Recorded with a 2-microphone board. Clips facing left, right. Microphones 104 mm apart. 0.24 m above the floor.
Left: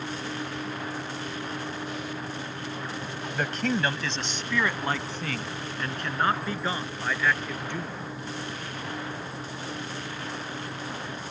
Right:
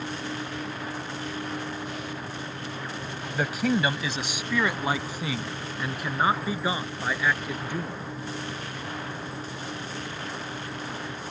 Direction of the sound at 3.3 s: 5° right (ahead or behind).